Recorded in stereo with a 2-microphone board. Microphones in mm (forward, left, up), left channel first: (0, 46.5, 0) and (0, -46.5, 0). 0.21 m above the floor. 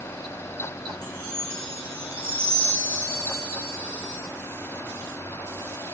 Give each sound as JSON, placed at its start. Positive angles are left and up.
{"t": 1.0, "sound": "a chime", "side_deg": -20, "distance_m": 1.0}